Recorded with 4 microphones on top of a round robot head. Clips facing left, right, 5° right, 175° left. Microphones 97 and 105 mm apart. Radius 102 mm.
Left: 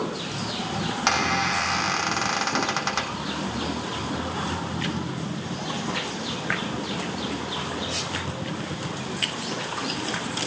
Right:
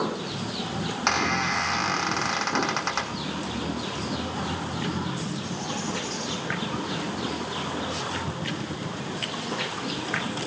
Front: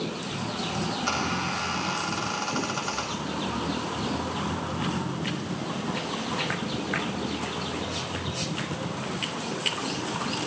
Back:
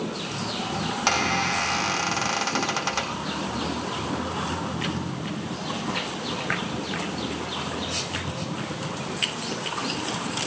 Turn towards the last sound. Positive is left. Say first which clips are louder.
# left 1 dB, back 7 dB
turn(degrees=180)